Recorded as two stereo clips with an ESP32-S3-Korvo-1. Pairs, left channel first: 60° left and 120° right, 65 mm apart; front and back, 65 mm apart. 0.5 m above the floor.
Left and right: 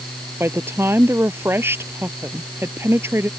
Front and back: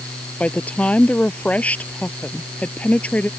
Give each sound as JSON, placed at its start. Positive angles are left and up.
{"t": 0.4, "sound": "a woman speaking", "azimuth_deg": -70}